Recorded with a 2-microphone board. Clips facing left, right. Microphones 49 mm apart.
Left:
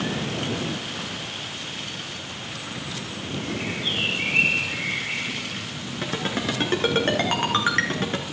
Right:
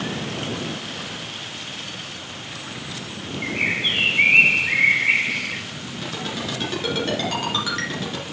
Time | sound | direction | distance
3.4 | a bird | 75° right (ahead or behind) | 0.9 m
6.0 | a ringtone | 40° left (ahead or behind) | 3 m